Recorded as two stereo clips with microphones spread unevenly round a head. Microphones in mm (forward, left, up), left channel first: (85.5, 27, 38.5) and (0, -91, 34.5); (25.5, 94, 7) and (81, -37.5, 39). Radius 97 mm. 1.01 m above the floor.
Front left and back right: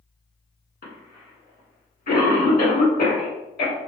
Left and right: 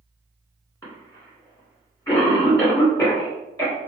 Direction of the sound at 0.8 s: 55° left.